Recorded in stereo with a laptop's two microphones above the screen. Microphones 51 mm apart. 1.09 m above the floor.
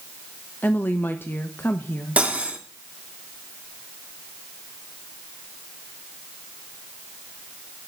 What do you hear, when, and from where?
0.6 s a woman speaking: 40° left (ahead or behind), 1.1 m
2.2 s cutlery clinking: 25° right (ahead or behind), 1.4 m